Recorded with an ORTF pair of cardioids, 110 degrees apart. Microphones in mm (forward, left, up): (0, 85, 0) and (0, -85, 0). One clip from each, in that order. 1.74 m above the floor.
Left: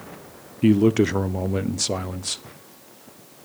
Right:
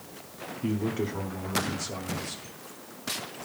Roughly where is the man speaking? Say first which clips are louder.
Left 12 dB; ahead left.